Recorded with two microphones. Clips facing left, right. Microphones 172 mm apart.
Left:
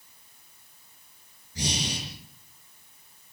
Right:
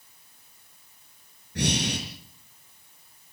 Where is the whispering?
I don't hear whispering.